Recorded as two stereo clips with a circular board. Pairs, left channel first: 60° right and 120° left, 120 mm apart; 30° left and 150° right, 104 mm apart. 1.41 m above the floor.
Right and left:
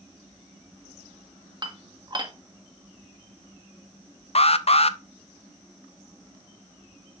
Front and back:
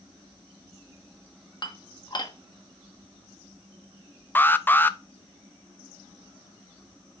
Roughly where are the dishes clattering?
Left.